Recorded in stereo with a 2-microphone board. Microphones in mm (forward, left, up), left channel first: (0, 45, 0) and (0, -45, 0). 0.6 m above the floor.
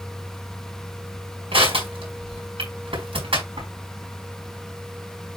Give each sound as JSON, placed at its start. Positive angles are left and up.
{"t": 1.5, "sound": "crushing", "side_deg": -80, "distance_m": 5.0}